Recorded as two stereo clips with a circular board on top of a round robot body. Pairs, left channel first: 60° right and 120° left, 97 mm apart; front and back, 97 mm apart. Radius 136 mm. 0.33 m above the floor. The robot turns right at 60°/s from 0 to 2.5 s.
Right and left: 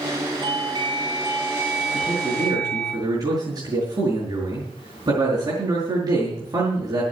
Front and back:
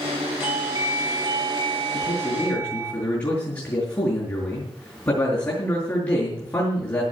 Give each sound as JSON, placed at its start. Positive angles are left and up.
{"t": 0.4, "sound": "a doorbell", "azimuth_deg": 120, "distance_m": 3.0}
{"t": 1.9, "sound": "a man speaking", "azimuth_deg": 30, "distance_m": 5.5}